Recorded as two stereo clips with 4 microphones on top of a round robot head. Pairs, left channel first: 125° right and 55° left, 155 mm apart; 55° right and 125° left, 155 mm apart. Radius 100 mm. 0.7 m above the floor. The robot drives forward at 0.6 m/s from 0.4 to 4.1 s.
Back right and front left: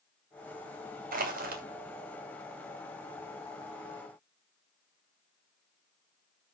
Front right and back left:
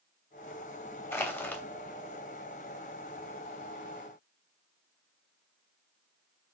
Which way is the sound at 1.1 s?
20° left.